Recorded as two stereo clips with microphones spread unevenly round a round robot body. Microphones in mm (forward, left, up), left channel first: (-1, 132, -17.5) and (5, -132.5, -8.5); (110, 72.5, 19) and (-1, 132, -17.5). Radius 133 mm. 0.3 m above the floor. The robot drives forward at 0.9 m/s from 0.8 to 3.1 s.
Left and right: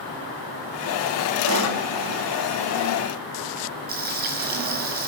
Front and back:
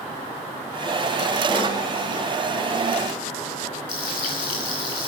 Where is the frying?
35° right, 3.5 m.